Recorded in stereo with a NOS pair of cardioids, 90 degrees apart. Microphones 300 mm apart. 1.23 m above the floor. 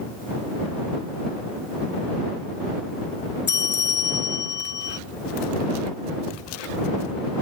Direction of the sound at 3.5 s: 40° left.